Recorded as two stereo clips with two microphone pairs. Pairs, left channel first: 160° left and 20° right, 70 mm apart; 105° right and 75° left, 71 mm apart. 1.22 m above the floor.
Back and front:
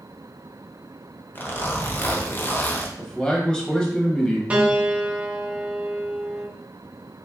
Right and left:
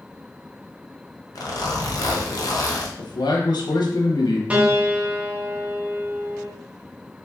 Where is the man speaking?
115° right, 1.0 m.